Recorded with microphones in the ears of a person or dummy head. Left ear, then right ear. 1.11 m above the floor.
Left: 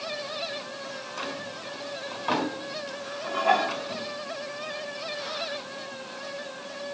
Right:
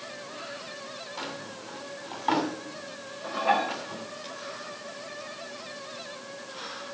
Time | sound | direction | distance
1.2 | a drawer | 10° right (ahead or behind) | 2.5 m
3.2 | dishes clattering | centre (ahead or behind) | 1.0 m